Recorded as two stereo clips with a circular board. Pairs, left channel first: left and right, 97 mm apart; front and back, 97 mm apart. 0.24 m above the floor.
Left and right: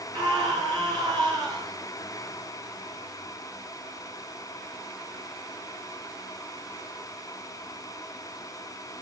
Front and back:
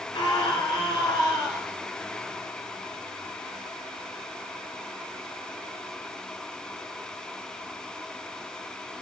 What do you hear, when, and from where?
0.1 s a scream: 50° right, 4.5 m